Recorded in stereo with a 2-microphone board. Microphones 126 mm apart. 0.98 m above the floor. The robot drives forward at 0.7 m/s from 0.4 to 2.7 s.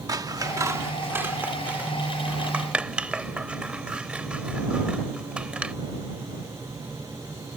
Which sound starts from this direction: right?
Scissors, at 0.1 s.